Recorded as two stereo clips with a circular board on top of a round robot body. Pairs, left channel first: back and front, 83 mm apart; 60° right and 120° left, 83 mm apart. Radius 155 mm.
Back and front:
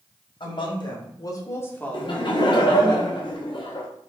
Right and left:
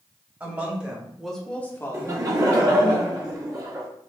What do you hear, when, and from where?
0.4 s a woman speaking: 170° right, 1.8 m; by 2.9 s 55° right, 1.5 m
1.9 s laughter: 170° left, 1.4 m